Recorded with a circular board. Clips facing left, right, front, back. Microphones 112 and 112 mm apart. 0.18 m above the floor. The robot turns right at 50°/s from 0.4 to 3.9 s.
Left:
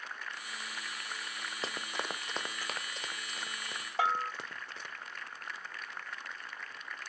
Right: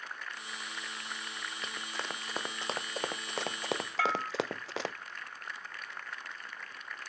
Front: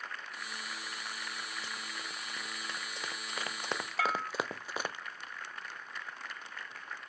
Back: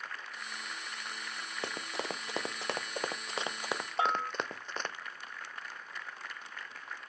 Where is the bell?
145° left.